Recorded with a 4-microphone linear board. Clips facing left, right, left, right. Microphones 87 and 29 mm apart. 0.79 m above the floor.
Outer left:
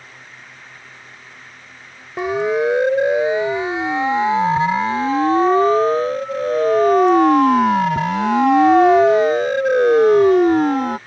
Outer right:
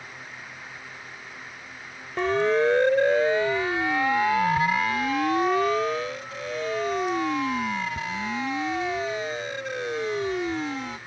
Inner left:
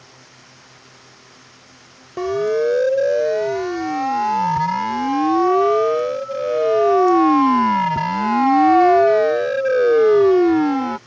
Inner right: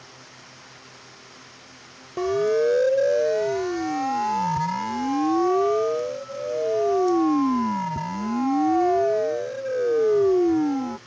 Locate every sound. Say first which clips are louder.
2.2 s a siren: outer left 3 dB, inner left 2 dB; 10° left (ahead or behind); by 11.0 s 55° left (ahead or behind)